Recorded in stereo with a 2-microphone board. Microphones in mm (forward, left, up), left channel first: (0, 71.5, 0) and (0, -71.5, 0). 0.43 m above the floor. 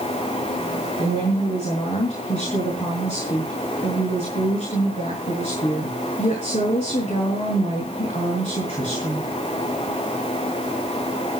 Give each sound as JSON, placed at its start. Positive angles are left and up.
{"t": 1.0, "sound": "a woman speaking", "side_deg": 45, "distance_m": 5.0}